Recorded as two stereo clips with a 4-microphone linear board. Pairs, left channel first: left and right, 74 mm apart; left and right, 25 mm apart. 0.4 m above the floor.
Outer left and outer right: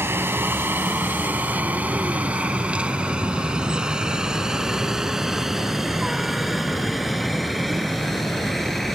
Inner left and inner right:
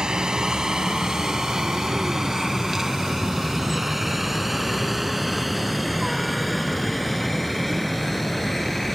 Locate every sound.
0.0 s a helicopter: 30° right (ahead or behind); by 8.9 s 5° left (ahead or behind)